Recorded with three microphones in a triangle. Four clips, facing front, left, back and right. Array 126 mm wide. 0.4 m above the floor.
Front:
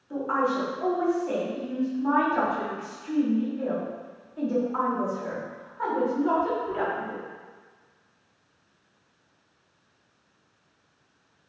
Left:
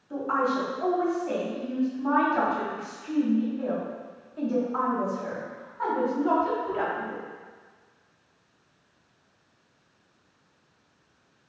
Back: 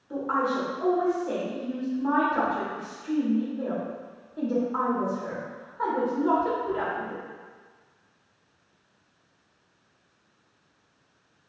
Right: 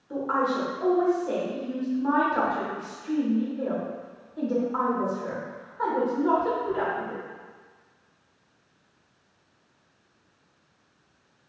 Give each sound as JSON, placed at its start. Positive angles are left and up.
{"t": 0.1, "sound": "a woman speaking", "azimuth_deg": -115, "distance_m": 1.4}